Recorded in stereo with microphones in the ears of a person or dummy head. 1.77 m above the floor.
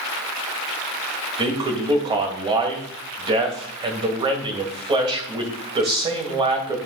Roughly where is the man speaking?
Right.